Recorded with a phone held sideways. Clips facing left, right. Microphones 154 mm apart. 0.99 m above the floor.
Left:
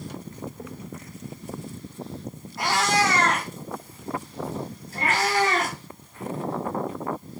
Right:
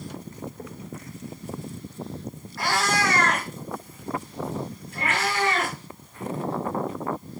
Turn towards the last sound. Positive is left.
turn(degrees=45)  # may be behind; listen again after turning